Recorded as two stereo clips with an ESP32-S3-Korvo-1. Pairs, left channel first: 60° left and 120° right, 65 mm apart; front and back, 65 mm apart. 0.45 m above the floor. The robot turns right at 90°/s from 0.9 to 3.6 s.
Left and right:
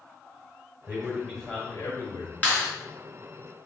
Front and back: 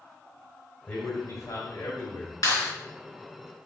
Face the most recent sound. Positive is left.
turn(degrees=105)